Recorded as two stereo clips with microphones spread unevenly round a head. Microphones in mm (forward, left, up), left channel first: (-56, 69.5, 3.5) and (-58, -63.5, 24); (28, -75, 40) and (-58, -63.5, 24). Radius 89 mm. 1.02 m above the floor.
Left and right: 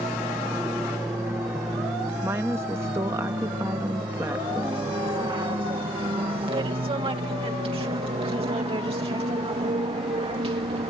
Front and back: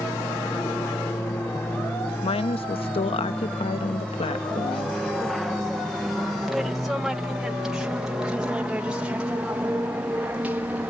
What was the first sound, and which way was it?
An aircraft, 10° right.